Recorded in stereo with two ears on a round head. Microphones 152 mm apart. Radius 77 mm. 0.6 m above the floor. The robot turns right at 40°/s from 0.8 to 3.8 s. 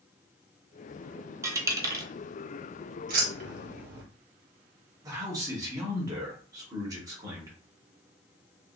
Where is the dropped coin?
20° right (ahead or behind), 0.6 m.